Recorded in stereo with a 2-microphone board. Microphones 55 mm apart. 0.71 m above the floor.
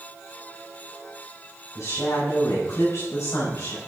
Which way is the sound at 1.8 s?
70° left (ahead or behind).